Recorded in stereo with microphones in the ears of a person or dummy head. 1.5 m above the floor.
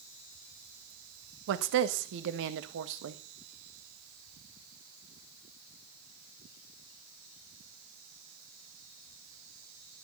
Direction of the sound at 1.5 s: 65° right (ahead or behind).